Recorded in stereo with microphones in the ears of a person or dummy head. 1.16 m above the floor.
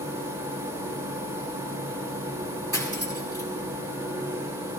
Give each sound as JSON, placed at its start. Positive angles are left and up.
{"t": 0.0, "sound": "a machine running", "side_deg": -20, "distance_m": 3.5}
{"t": 2.7, "sound": "cutlery clinking", "side_deg": -15, "distance_m": 3.0}